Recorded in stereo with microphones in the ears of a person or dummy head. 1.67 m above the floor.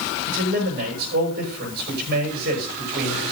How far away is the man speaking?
About 7.5 m.